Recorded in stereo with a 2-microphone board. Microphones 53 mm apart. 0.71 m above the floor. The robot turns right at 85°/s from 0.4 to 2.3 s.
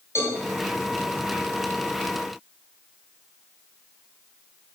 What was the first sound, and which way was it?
A cowbell, 65° left (ahead or behind).